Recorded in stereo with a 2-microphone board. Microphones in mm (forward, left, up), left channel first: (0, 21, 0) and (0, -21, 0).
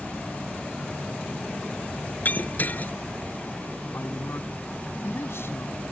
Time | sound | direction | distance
2.2 | breaking glass | 45° left (ahead or behind) | ?
3.9 | a man speaking | 85° left | ?